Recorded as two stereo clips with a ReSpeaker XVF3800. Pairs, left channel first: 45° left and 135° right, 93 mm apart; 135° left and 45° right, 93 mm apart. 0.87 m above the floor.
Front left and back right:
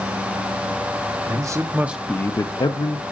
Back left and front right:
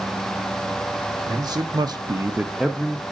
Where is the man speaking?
90° right, 1.2 m; by 3.0 s 55° left, 1.1 m.